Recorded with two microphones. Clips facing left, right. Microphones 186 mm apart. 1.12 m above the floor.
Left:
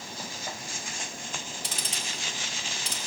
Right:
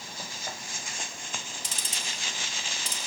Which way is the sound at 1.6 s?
65° left (ahead or behind).